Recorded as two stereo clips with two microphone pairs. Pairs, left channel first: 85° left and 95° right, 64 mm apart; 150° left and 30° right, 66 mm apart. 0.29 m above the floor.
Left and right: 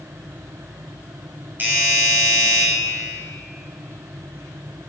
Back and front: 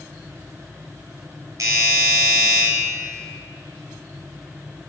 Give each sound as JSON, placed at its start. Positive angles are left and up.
{"t": 1.6, "sound": "a doorbell", "azimuth_deg": -45, "distance_m": 3.0}